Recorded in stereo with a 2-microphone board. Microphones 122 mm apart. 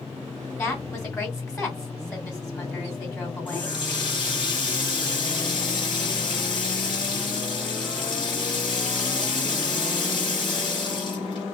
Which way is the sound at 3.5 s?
40° left (ahead or behind).